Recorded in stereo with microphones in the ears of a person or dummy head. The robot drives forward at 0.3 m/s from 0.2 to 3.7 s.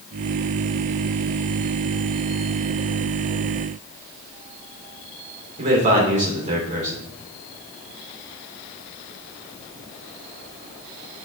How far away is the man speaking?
About 3.5 m.